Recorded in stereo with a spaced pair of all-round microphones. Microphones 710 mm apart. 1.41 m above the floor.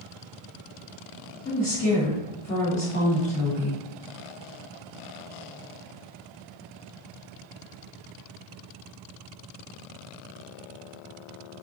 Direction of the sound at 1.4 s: 15° left (ahead or behind).